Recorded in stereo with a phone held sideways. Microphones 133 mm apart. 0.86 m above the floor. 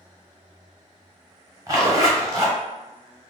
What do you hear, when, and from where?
1.7 s a zipper: 30° right (ahead or behind), 0.8 m